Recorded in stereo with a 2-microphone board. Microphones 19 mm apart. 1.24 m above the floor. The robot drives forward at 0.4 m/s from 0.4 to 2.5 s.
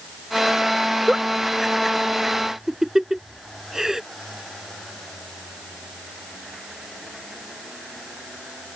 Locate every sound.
1.1 s a giggle: 20° right (ahead or behind)